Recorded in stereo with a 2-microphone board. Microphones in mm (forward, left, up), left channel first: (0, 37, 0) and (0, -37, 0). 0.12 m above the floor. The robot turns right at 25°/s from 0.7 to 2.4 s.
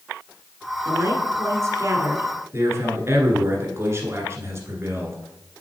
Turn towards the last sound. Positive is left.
turn(degrees=-35)  # may be behind; listen again after turning